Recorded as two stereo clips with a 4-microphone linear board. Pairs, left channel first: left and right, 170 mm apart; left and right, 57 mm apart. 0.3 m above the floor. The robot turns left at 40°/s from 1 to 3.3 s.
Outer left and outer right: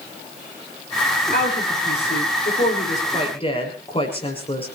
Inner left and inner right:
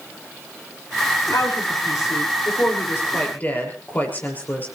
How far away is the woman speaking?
About 7 m.